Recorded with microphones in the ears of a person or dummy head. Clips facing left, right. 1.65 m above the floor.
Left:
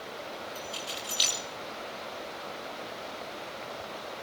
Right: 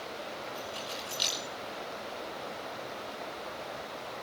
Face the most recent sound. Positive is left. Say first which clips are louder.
# even
turn(degrees=45)  # may be behind; listen again after turning